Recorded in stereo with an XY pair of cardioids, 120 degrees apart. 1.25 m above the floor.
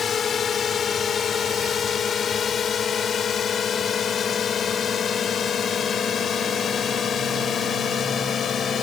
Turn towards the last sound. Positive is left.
turn(degrees=45)